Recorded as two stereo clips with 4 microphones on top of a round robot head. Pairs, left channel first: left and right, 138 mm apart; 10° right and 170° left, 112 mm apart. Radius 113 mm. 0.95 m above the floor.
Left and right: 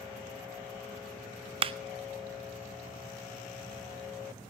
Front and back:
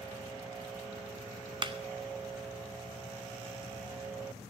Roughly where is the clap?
Behind right.